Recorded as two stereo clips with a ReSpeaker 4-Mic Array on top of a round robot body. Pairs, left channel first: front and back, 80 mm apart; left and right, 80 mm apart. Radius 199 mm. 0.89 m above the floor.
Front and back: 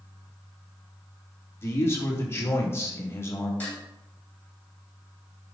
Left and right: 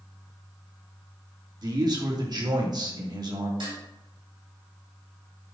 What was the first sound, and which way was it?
A man speaking, 60° right.